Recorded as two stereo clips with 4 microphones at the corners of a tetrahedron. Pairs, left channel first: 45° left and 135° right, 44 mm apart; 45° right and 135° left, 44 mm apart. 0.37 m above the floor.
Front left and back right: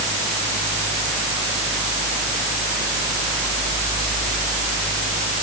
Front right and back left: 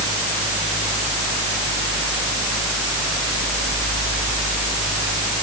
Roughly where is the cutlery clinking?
No cutlery clinking in this recording.